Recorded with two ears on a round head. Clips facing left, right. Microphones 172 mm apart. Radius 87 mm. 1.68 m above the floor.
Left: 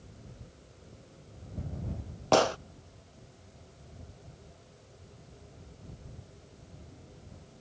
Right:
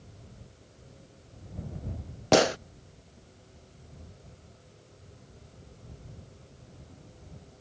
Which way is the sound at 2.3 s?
20° right (ahead or behind).